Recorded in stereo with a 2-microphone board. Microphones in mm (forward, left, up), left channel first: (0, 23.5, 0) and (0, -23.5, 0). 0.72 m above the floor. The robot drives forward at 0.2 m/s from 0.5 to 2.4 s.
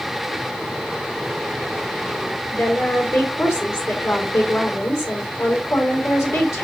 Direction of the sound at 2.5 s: 70° left (ahead or behind).